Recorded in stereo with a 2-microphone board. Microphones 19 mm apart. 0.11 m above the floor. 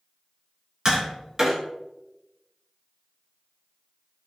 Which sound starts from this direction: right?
Tapping, at 0.8 s.